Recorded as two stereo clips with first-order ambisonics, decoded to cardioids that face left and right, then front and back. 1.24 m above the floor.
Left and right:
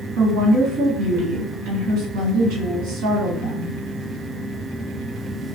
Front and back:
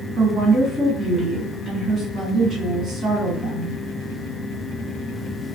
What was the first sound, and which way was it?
A woman speaking, 120° right.